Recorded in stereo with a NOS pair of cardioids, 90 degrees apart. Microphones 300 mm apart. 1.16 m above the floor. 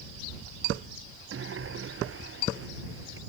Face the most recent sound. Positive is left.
turn(degrees=-45)